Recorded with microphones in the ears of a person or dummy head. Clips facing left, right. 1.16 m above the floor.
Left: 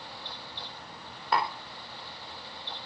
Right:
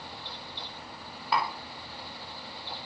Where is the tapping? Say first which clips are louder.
Left 1 dB; 5° right (ahead or behind), 3 m.